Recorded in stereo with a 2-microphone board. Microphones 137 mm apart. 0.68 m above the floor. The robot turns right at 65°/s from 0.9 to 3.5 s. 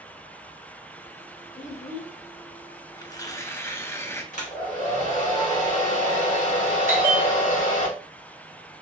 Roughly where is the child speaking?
Ahead left.